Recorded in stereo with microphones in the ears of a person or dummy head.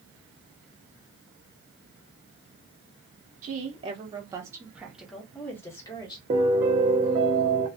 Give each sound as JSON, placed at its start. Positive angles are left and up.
{"t": 3.4, "sound": "a woman speaking", "side_deg": -45, "distance_m": 1.2}
{"t": 6.3, "sound": "a piano", "side_deg": -20, "distance_m": 0.6}